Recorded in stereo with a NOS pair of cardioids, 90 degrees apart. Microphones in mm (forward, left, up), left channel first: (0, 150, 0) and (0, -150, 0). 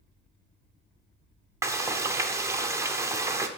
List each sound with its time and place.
1.6 s frying: 10° right, 0.8 m